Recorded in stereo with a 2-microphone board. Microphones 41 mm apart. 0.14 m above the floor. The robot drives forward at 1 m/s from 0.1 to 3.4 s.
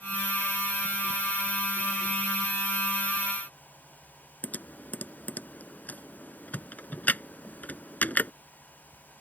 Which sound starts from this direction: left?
Typing on a keyboard, at 4.4 s.